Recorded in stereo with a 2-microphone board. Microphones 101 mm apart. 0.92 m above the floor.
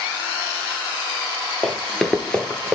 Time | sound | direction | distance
1.6 | running footsteps | centre (ahead or behind) | 1.1 m